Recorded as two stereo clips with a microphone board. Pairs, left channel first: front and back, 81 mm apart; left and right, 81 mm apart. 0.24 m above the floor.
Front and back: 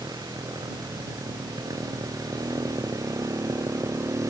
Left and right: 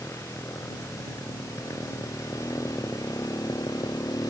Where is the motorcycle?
145° left; by 4.3 s 130° left.